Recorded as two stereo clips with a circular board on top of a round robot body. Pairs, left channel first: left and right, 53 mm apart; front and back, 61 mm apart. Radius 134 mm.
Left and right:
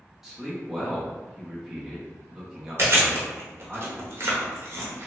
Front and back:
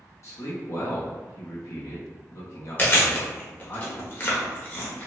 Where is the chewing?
55° right, 1.1 m.